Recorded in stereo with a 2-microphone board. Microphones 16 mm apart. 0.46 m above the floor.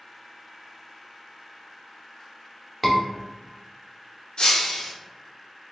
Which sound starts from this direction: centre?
A scream, at 2.8 s.